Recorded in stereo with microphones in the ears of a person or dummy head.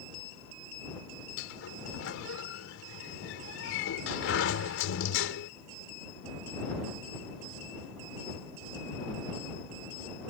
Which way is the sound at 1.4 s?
80° left.